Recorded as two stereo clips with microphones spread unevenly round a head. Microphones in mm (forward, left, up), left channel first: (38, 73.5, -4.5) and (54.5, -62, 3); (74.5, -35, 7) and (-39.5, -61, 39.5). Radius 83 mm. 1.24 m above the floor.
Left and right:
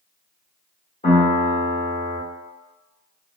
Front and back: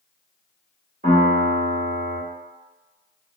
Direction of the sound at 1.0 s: 155° left.